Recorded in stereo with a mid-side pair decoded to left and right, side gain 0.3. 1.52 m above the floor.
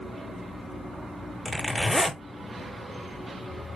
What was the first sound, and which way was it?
A zipper, 25° left.